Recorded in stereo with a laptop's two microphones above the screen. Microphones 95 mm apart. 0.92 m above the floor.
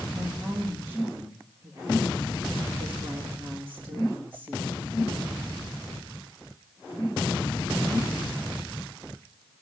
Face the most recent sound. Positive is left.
turn(degrees=-45)  # may be behind; listen again after turning